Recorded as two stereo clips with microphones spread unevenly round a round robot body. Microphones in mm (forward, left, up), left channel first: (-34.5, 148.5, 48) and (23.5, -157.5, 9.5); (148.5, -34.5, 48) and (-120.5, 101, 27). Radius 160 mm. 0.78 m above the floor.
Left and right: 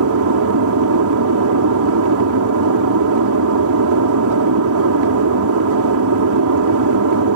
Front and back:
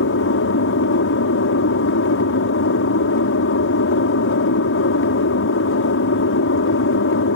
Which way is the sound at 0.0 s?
70° right.